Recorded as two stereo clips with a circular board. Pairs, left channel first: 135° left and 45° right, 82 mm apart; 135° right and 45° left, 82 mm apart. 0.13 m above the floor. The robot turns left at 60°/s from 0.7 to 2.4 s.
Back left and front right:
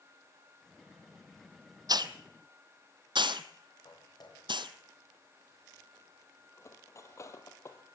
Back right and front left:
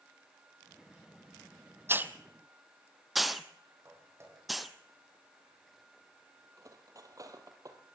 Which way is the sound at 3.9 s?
105° left.